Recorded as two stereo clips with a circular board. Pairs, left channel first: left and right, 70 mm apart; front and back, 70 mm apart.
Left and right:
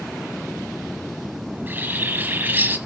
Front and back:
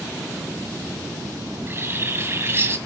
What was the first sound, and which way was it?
A bird, 140° right.